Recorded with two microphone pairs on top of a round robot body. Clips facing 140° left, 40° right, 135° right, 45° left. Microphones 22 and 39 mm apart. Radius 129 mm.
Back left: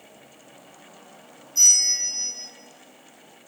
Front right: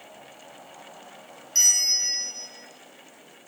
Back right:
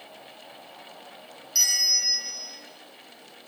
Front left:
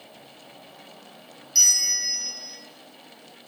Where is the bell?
55° right, 0.5 m.